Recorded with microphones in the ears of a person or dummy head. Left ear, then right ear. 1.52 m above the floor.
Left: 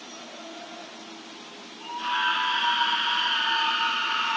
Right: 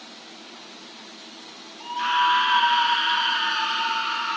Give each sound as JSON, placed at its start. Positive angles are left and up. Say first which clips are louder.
{"t": 1.8, "sound": "a scream", "louder": "right 5 dB", "side_deg": -55, "distance_m": 2.0}